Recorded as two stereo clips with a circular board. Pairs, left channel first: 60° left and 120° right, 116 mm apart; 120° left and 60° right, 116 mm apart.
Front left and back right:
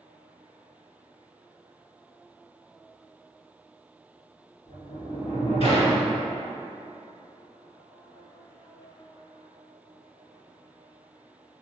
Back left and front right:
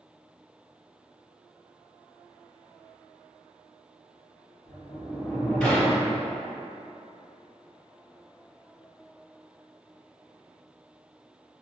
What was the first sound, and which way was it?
A sliding door, 45° left.